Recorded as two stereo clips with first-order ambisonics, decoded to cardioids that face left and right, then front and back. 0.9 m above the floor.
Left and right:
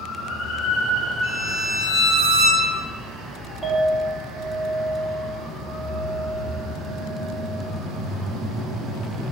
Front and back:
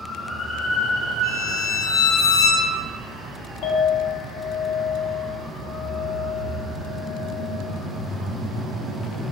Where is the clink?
5° right, 0.7 m.